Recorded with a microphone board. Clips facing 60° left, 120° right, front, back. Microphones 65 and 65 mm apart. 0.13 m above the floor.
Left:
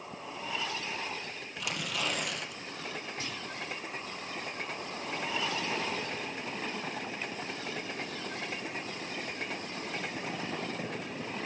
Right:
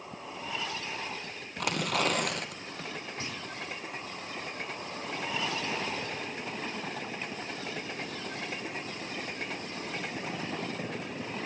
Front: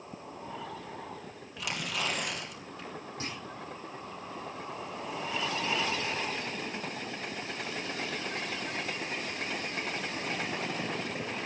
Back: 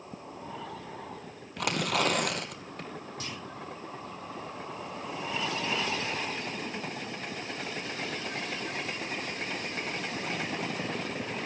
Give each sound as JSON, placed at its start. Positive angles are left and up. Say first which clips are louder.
{"t": 1.6, "sound": "tearing paper", "louder": "right 6 dB, back 7 dB", "azimuth_deg": -155, "distance_m": 2.5}
{"t": 3.2, "sound": "a clunk", "louder": "right 1 dB, front 3 dB", "azimuth_deg": -60, "distance_m": 5.0}